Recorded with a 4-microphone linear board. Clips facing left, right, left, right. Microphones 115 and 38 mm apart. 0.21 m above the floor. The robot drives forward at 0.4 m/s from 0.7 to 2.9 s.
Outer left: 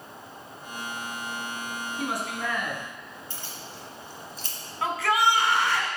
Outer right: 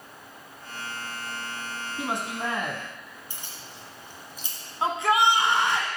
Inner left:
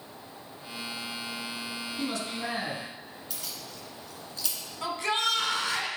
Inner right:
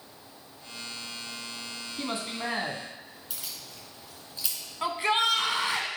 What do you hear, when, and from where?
2.0 s a man speaking: 25° right (ahead or behind), 1.4 m; by 2.8 s 30° right (ahead or behind), 1.3 m
3.3 s keys jangling: 15° right (ahead or behind), 1.7 m
4.8 s a shout: 20° right (ahead or behind), 1.3 m